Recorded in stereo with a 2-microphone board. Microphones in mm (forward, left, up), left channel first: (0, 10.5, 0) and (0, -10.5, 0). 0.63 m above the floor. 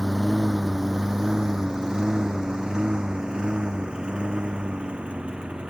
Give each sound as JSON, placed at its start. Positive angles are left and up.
{"t": 0.0, "sound": "a lawn mower", "side_deg": 5}